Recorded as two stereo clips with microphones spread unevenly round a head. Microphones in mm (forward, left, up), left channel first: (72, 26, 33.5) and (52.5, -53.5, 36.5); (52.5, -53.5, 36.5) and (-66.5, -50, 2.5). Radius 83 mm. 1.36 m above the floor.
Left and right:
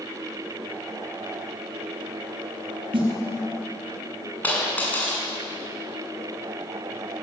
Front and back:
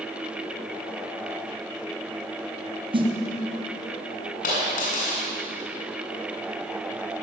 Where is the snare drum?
135° right, 3.5 m.